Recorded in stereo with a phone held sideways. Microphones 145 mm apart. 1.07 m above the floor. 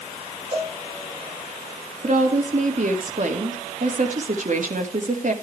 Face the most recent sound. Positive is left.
turn(degrees=-60)  # may be behind; listen again after turning